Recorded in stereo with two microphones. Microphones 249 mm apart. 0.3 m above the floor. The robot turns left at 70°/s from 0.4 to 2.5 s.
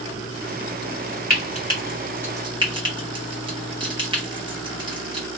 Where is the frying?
35° left (ahead or behind), 2 m; by 5.3 s 20° right (ahead or behind), 2 m.